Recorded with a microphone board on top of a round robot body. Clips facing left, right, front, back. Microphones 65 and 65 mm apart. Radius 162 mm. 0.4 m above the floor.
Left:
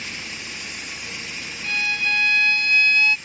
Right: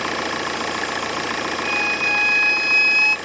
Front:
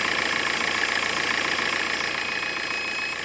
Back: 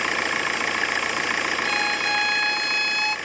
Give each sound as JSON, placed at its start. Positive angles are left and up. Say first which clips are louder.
{"t": 0.0, "sound": "an engine running", "louder": "right 11 dB, back 1 dB", "azimuth_deg": -100}
{"t": 1.6, "sound": "a violin", "louder": "left 1 dB, back 3 dB", "azimuth_deg": -165}